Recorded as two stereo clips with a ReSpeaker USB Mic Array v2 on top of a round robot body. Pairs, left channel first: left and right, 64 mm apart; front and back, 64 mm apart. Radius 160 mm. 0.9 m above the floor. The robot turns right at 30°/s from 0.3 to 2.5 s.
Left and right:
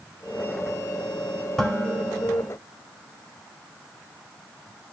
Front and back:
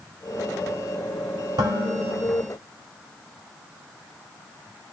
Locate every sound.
1.6 s dishes clattering: 170° left, 2.5 m; by 2.5 s 160° right, 2.5 m